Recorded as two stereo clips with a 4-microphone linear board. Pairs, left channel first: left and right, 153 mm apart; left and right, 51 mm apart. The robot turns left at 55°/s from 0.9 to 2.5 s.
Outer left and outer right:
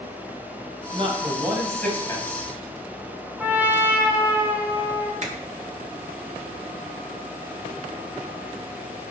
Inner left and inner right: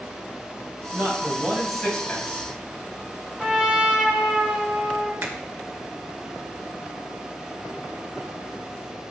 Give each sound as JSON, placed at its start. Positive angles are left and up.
{"t": 0.9, "sound": "a man speaking", "azimuth_deg": -135, "distance_m": 2.5}
{"t": 3.4, "sound": "a trumpet", "side_deg": -15, "distance_m": 2.5}
{"t": 5.2, "sound": "a finger snap", "side_deg": -50, "distance_m": 1.8}